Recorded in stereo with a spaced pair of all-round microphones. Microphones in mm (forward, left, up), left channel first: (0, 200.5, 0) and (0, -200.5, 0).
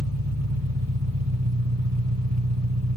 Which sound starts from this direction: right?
An engine running, at 0.0 s.